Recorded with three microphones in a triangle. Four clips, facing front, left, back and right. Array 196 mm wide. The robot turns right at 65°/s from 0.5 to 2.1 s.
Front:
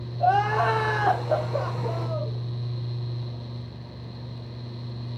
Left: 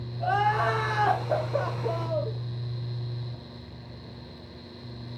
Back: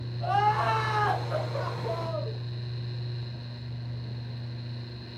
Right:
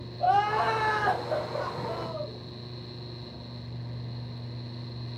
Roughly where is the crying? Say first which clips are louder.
Right 1 dB, front 4 dB; ahead.